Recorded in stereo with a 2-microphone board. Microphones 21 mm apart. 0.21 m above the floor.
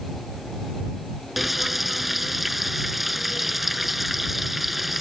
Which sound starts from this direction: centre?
Frying, at 1.4 s.